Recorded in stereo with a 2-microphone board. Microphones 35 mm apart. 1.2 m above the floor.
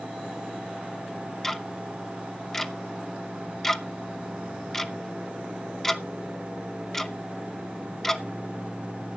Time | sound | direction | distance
1.4 | ticking | 10° left (ahead or behind) | 0.9 m